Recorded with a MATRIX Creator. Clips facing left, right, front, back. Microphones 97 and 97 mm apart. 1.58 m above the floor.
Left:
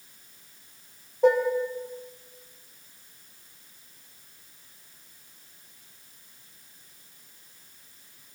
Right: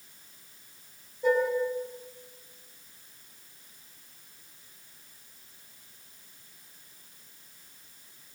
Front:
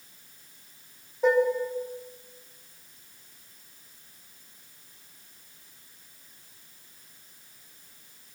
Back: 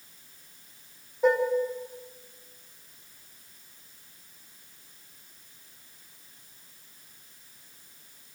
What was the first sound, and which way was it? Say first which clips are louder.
Dishes clattering: left 4 dB, front 1 dB; 90° left.